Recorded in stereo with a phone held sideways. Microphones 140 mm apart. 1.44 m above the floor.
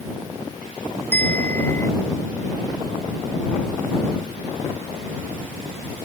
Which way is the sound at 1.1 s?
20° left (ahead or behind).